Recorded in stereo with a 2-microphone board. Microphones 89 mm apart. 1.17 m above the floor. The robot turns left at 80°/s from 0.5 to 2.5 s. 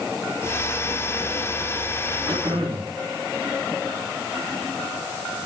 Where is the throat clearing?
60° right (ahead or behind), 4 m; by 2.9 s 75° right (ahead or behind), 4 m.